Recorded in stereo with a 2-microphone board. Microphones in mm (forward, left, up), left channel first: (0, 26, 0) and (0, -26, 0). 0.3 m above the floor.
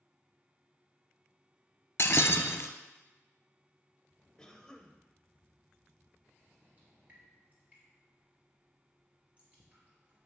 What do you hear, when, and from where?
2.0 s breaking glass: 50° left (ahead or behind), 0.6 m
4.4 s a cough: 15° left (ahead or behind), 1.0 m
6.8 s dripping: 25° right (ahead or behind), 3 m